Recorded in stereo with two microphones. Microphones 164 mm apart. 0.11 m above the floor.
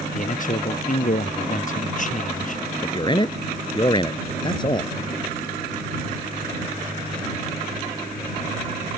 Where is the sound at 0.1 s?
55° left (ahead or behind).